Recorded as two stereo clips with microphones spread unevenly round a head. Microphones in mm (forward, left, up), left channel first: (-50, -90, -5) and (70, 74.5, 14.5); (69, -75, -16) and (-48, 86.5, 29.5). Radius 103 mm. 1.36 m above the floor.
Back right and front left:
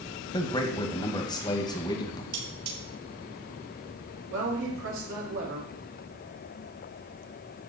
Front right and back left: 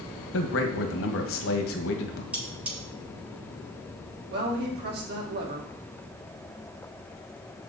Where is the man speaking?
55° right, 1.9 m.